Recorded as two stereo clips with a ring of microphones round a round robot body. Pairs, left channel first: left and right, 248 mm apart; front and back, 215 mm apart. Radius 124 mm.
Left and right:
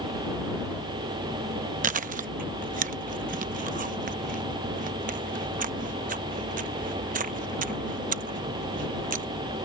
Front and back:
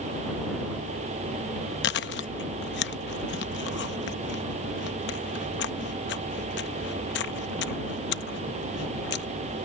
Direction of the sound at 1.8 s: 35° right.